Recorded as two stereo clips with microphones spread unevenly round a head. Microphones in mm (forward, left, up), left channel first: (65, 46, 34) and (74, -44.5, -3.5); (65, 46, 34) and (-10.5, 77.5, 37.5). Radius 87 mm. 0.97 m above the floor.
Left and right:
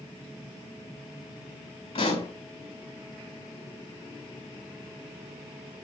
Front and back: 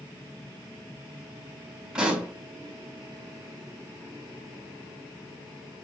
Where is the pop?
80° left, 6 m.